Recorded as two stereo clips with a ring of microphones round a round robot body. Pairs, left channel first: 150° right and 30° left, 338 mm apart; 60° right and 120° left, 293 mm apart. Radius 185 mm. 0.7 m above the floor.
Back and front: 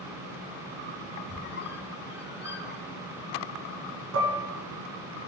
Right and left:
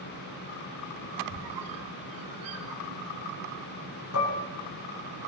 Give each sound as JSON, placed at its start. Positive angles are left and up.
{"t": 1.3, "sound": "a squeak", "azimuth_deg": 150, "distance_m": 2.0}
{"t": 4.1, "sound": "dishes clattering", "azimuth_deg": -25, "distance_m": 5.0}